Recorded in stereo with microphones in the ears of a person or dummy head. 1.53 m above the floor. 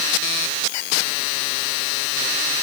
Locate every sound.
Only background noise.